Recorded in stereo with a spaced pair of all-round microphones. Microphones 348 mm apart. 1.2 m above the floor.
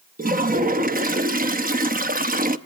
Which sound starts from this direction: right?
A toilet flushing, at 0.2 s.